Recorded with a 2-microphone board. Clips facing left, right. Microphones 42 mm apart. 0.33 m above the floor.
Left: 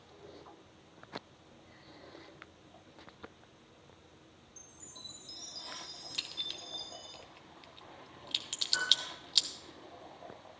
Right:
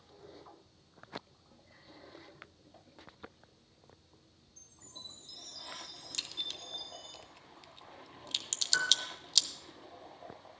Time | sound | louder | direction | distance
4.6 | a chime | right 1 dB | 10° right (ahead or behind) | 3.5 m
6.1 | a crack | even | 15° left (ahead or behind) | 0.7 m
8.7 | a piano | right 1 dB | 30° right (ahead or behind) | 4.5 m